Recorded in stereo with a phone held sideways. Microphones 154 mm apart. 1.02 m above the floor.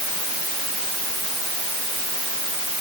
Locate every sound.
Only background noise.